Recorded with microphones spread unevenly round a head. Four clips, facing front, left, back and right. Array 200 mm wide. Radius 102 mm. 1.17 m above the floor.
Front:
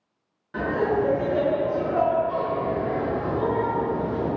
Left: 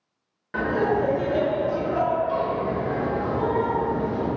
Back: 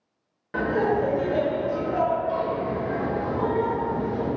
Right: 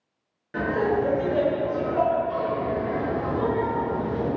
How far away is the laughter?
About 1.2 m.